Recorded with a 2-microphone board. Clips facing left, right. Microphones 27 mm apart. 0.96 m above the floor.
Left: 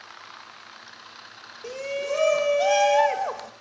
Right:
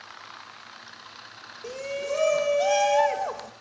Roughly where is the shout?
Centre.